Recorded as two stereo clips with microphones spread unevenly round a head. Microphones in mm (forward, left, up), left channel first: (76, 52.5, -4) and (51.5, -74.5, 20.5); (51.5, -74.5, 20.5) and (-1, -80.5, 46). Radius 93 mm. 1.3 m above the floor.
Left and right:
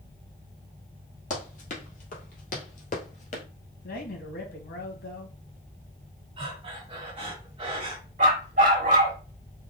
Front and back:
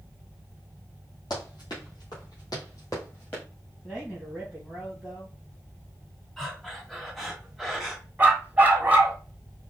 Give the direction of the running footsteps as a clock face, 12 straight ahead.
10 o'clock.